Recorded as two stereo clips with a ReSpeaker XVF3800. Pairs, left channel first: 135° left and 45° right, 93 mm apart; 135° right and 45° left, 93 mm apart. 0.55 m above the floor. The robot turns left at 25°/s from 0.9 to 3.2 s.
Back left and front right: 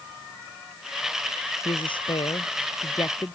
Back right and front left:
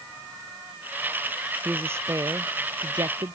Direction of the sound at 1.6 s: 115° left.